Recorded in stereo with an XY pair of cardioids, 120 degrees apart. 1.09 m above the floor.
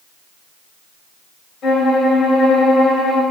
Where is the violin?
50° left, 2 m.